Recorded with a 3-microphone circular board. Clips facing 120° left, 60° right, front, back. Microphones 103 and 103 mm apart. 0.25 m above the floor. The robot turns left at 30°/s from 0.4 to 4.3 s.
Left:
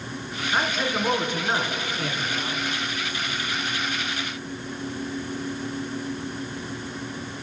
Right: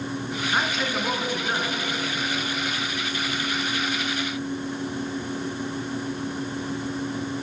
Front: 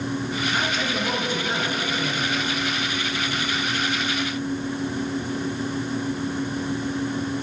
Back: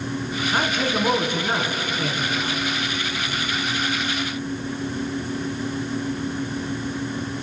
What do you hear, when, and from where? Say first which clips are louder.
0.5 s a man speaking: left 2 dB, back 3 dB; 150° right, 3 m; by 2.6 s 145° left, 3 m